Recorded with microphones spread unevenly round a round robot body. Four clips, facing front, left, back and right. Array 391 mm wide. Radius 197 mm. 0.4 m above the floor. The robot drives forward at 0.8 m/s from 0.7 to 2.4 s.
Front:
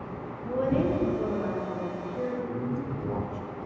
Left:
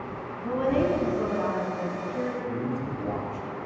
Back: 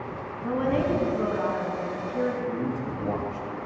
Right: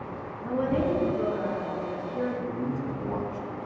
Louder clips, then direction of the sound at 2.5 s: Even, back 3 dB; 155° left.